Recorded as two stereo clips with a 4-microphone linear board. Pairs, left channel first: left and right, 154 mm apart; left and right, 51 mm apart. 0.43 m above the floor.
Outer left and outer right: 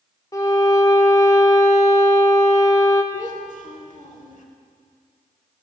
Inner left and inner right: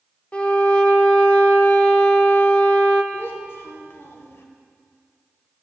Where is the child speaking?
55° left (ahead or behind), 0.9 m.